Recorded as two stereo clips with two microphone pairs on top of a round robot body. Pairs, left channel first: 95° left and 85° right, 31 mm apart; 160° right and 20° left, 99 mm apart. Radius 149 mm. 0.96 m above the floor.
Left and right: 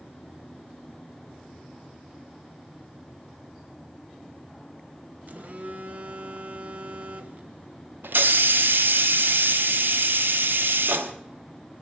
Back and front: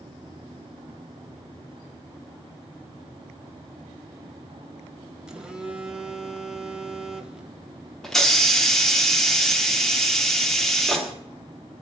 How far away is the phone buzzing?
About 1.7 m.